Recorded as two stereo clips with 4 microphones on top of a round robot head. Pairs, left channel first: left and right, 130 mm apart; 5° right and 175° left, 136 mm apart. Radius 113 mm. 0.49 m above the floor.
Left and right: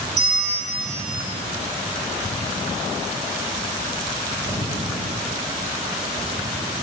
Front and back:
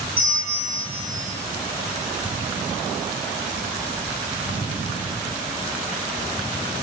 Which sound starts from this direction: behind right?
A bell, at 0.2 s.